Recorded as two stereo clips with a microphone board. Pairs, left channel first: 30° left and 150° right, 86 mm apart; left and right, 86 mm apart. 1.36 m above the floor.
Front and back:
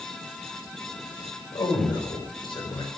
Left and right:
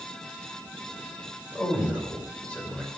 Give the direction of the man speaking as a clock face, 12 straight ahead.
11 o'clock.